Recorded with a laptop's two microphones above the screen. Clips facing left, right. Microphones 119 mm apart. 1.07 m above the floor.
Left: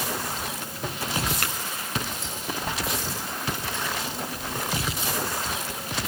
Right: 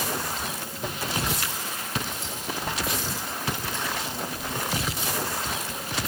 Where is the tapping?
60° left (ahead or behind), 5.5 m.